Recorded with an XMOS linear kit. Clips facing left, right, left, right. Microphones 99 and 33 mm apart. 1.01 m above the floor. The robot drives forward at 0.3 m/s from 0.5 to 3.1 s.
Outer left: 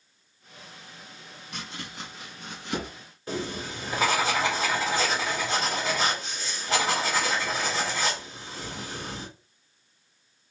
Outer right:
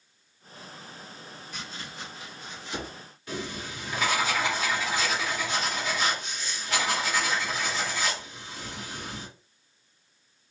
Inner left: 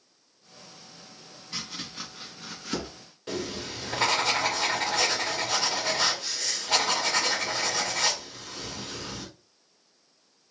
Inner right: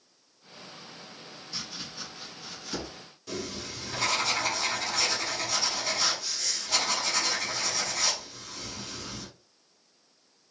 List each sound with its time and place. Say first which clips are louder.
1.5 s chopping: outer left 3 dB, inner left 3 dB; 65° left (ahead or behind), 2.0 m; by 2.9 s 60° left (ahead or behind), 2 m
3.3 s writing: outer left 3 dB, inner left 3 dB; 35° left (ahead or behind), 1.8 m